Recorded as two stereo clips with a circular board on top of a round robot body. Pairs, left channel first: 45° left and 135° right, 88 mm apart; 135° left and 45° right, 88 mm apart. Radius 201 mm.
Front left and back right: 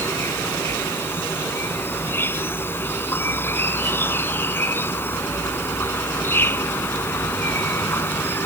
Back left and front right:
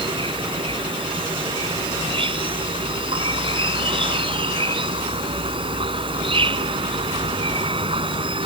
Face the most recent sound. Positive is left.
turn(degrees=-20)